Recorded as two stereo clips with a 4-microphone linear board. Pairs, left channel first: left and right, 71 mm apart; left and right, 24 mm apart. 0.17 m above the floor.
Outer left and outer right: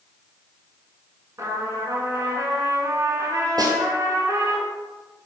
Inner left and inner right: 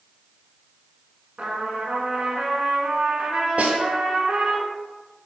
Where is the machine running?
No machine running in this recording.